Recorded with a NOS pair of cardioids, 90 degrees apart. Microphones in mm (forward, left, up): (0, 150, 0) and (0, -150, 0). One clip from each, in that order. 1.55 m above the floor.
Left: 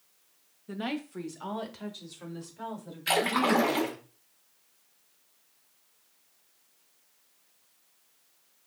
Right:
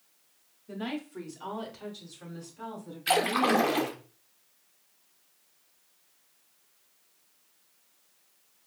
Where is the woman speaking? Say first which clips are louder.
Left 2 dB; 25° left, 0.8 m; by 4.0 s 15° left, 2.5 m.